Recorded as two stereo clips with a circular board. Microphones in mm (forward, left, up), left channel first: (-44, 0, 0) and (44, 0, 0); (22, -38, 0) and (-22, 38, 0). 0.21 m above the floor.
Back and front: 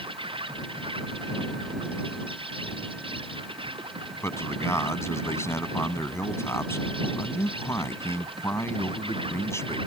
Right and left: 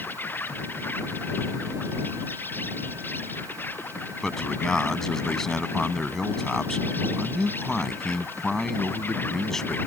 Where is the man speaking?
145° right.